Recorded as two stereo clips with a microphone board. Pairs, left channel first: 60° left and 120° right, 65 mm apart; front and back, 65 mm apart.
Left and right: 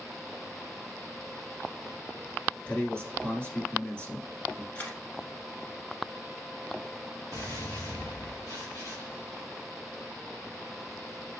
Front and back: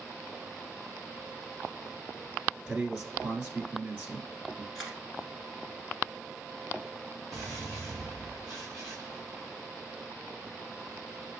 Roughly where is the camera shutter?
Left.